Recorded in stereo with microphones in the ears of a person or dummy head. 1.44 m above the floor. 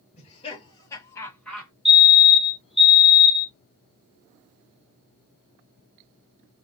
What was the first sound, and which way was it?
Laughter, 35° left (ahead or behind).